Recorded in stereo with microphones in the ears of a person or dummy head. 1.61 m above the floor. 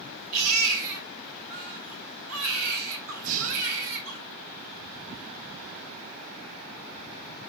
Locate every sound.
0.3 s a baby crying: 75° right (ahead or behind), 4.5 m
3.2 s breathing: 40° right (ahead or behind), 1.6 m